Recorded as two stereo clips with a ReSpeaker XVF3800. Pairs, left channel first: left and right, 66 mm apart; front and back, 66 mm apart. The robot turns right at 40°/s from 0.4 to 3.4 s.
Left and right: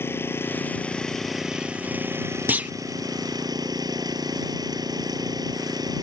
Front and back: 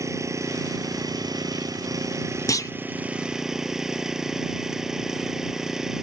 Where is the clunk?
30° right; by 2.7 s 20° right.